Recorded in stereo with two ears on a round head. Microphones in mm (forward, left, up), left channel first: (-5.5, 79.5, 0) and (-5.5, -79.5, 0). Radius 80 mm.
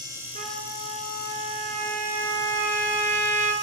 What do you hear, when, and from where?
0.3 s a trumpet: 45° right (ahead or behind), 7 m